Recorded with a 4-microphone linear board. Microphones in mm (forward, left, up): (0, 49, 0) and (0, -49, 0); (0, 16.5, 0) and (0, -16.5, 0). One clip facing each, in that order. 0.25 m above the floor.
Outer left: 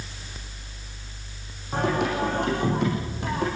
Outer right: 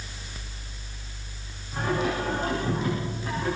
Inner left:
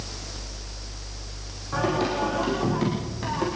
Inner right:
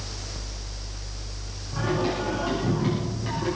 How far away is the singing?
About 10 m.